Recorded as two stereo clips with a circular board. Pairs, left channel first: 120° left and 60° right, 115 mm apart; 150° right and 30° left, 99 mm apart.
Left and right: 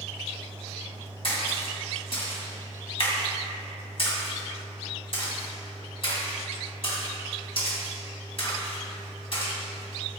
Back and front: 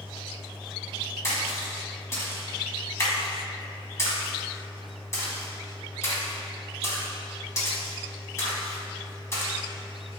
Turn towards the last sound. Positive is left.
turn(degrees=150)